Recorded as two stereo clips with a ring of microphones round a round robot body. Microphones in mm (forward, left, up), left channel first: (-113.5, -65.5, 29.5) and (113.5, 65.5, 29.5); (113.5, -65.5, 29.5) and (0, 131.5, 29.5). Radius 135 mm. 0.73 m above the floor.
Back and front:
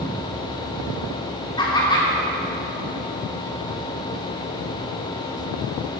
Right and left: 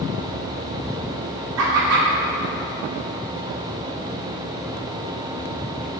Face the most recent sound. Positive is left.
turn(degrees=135)